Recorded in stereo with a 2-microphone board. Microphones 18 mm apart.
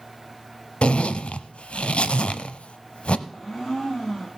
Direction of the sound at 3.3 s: 25° left (ahead or behind).